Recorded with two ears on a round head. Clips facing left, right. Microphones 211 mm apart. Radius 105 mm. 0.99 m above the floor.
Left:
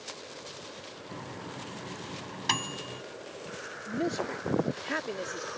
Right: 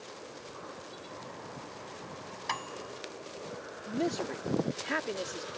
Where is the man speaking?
Centre (ahead or behind).